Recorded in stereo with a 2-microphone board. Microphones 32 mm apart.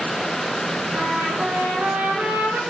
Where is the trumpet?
70° right (ahead or behind), 9.5 m.